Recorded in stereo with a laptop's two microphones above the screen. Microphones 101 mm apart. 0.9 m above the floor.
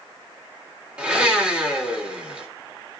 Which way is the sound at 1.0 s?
10° right (ahead or behind).